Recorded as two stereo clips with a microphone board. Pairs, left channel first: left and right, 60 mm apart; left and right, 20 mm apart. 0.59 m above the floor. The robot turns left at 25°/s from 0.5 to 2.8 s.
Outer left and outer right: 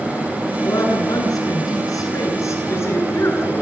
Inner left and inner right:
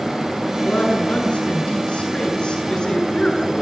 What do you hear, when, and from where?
0.6 s a woman speaking: 100° left, 9.5 m; by 3.6 s 45° left, 9.5 m